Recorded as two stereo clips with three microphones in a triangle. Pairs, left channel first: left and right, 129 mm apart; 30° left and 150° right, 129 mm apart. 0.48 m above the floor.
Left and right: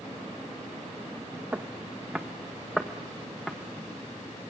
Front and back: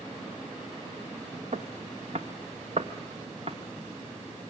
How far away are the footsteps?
About 1.5 m.